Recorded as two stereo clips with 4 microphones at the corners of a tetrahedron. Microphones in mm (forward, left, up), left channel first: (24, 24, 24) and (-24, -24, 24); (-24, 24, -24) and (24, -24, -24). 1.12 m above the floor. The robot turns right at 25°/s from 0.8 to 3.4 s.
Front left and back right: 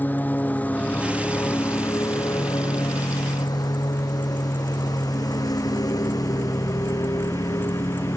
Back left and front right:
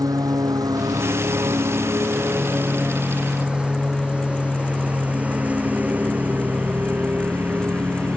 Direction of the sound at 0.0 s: 20° right.